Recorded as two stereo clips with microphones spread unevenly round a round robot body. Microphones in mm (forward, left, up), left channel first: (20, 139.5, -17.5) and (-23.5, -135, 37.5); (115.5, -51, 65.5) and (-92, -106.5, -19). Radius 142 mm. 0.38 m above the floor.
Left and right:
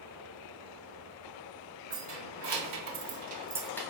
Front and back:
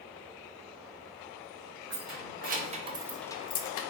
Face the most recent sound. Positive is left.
turn(degrees=20)